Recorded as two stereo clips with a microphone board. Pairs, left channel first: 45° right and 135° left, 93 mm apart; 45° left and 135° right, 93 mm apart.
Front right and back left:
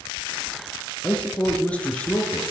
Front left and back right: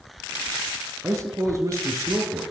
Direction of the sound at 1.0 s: 110° right.